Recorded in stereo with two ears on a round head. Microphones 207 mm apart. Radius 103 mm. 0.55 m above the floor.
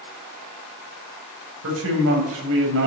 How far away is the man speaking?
About 3.5 m.